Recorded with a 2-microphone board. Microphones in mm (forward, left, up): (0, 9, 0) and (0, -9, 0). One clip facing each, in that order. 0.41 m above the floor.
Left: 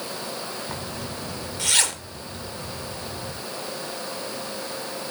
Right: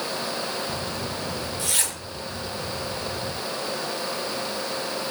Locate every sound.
0.7 s a zipper: 35° left (ahead or behind), 1.5 m